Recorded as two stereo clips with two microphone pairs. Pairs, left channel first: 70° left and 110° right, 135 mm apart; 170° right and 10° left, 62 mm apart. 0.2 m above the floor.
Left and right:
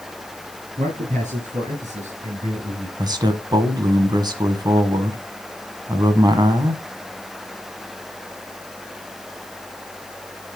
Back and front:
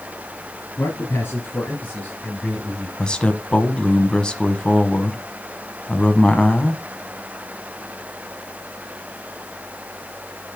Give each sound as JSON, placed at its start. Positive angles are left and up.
{"t": 0.8, "sound": "a man speaking", "azimuth_deg": -130, "distance_m": 4.0}
{"t": 3.0, "sound": "a man speaking", "azimuth_deg": -105, "distance_m": 1.2}